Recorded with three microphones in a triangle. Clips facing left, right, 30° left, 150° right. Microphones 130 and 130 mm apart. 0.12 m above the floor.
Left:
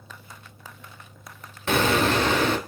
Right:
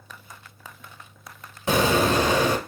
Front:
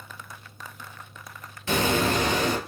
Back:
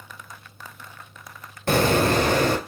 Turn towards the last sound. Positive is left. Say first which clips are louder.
# right 1 dB, back 4 dB
turn(degrees=-165)